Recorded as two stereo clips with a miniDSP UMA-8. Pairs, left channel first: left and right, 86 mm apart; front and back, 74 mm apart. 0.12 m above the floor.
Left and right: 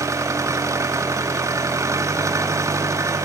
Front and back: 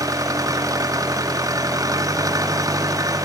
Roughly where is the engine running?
Behind right.